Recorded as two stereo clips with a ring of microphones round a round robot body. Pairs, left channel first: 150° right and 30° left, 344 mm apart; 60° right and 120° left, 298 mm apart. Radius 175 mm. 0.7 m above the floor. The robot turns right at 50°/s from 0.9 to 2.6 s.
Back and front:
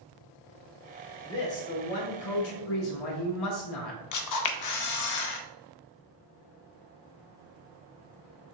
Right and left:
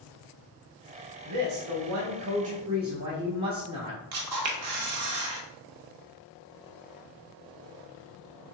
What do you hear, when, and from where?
1.2 s a woman speaking: 130° left, 1.3 m; by 4.0 s 165° right, 1.3 m
4.1 s a camera shutter: 170° left, 0.5 m